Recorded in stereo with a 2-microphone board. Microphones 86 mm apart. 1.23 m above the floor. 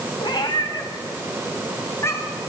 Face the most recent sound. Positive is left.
turn(degrees=30)  # may be behind; listen again after turning